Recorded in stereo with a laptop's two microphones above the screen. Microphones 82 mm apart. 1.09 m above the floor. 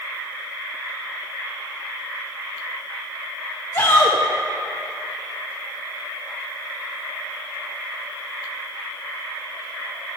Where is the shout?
45° left (ahead or behind), 1.3 m.